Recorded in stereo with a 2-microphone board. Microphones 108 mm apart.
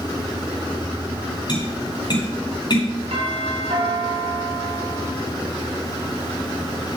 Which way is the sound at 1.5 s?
45° left (ahead or behind).